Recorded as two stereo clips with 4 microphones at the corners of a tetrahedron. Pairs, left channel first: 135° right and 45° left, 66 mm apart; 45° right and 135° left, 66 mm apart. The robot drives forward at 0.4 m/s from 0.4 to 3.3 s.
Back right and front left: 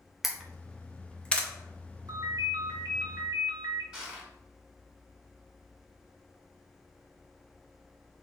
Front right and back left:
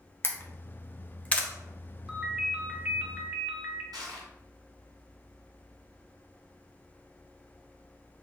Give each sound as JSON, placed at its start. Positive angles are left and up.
{"t": 0.2, "sound": "a camera shutter", "azimuth_deg": -35, "distance_m": 0.8}
{"t": 2.1, "sound": "a ringtone", "azimuth_deg": 55, "distance_m": 1.1}
{"t": 3.9, "sound": "crushing", "azimuth_deg": 125, "distance_m": 1.5}